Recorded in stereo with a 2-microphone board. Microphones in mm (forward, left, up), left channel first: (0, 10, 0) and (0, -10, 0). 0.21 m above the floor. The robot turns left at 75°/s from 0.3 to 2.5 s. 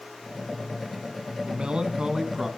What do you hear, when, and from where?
1.4 s a man speaking: 85° right, 1.5 m; by 2.5 s 160° right, 1.5 m